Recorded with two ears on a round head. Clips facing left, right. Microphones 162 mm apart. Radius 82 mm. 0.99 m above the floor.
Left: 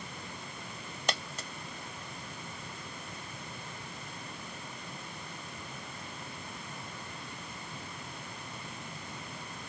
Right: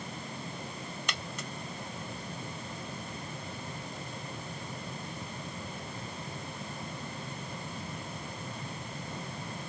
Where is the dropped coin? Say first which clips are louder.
Left 8 dB; 30° left (ahead or behind).